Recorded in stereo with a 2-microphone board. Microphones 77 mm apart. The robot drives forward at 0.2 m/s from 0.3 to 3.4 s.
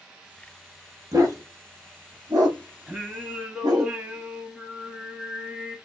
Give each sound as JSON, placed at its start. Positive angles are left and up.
{"t": 1.1, "sound": "a dog barking", "side_deg": -50, "distance_m": 1.2}
{"t": 2.9, "sound": "singing", "side_deg": -15, "distance_m": 1.3}